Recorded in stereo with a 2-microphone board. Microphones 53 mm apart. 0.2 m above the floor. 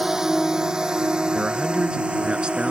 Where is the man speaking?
20° right (ahead or behind).